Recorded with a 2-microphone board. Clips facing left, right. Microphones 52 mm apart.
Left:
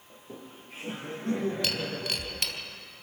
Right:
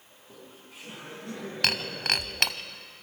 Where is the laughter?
40° left (ahead or behind), 6.5 m; by 2.6 s 55° left (ahead or behind), 8 m.